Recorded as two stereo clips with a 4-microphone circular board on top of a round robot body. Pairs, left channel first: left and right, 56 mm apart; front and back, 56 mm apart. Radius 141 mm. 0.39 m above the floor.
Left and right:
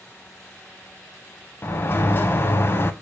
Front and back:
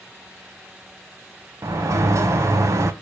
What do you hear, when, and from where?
1.6 s a sliding door: 145° left, 0.5 m